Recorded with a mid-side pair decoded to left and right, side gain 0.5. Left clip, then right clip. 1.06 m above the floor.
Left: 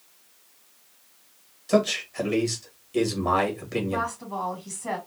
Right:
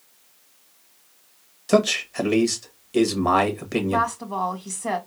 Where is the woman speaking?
40° right, 2 m.